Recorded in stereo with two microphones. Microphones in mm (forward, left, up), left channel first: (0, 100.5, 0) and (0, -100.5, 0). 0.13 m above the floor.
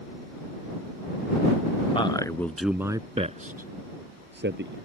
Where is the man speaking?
25° left (ahead or behind); by 4.8 s 60° right (ahead or behind).